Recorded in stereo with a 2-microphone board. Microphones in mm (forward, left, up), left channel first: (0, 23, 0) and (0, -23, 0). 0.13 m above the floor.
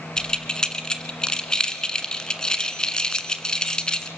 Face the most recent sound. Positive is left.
turn(degrees=20)  # may be behind; listen again after turning